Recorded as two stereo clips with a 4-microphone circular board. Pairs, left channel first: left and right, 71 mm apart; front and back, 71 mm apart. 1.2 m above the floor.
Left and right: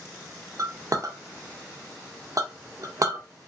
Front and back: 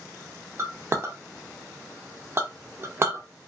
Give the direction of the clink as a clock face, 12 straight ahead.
4 o'clock.